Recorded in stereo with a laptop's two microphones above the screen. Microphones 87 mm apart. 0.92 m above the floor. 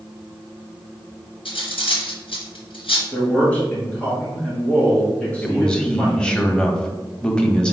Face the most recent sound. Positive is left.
turn(degrees=10)  # may be behind; listen again after turning